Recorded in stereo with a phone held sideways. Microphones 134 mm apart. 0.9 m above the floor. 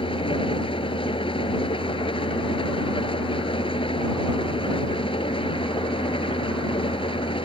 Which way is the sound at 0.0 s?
40° left (ahead or behind).